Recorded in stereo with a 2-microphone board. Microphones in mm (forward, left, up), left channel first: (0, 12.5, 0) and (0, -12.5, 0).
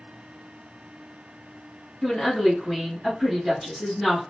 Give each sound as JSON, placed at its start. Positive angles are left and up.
{"t": 2.0, "sound": "a woman speaking", "side_deg": 25, "distance_m": 1.6}